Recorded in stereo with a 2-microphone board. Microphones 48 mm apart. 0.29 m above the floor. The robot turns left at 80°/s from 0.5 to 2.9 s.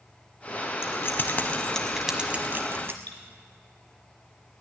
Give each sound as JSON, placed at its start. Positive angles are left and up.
{"t": 0.8, "sound": "keys jangling", "side_deg": 60, "distance_m": 1.5}
{"t": 3.1, "sound": "cutlery clinking", "side_deg": 35, "distance_m": 2.5}